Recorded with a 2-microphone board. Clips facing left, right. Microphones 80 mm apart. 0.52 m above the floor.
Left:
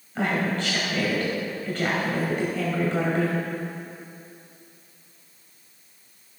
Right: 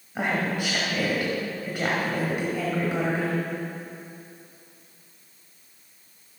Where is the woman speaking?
10° right (ahead or behind), 2 m.